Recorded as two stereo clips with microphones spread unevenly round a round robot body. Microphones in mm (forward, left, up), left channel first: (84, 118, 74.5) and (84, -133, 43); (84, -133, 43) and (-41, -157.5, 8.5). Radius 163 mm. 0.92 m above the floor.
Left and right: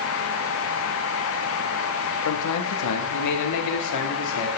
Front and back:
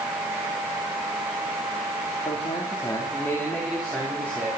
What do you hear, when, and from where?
2.2 s a man speaking: 75° left, 2 m; by 4.5 s 115° left, 3 m